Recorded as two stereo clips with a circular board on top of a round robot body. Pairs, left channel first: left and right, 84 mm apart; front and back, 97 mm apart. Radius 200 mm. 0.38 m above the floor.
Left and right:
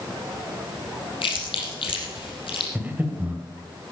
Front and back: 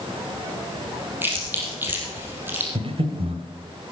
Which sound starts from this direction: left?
Chewing, at 1.2 s.